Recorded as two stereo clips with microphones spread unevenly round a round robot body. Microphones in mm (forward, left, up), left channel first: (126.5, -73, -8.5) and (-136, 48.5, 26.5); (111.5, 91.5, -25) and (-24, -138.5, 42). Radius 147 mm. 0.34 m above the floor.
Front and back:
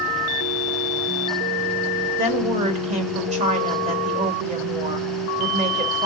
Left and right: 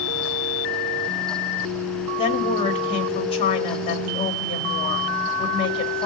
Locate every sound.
2.2 s a woman speaking: 90° left, 1.1 m